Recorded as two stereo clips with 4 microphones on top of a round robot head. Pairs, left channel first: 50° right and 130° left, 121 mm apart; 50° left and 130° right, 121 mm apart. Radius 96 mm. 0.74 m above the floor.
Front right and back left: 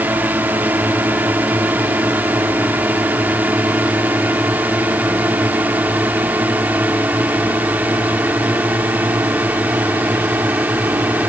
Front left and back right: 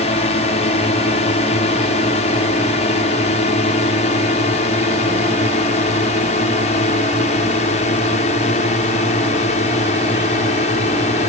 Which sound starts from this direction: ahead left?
A drone, at 0.0 s.